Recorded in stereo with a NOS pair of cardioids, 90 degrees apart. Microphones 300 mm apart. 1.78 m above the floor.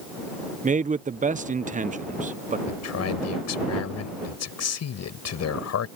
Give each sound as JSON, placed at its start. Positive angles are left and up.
{"t": 0.6, "sound": "a man speaking", "azimuth_deg": -25}
{"t": 2.7, "sound": "a man speaking", "azimuth_deg": 60}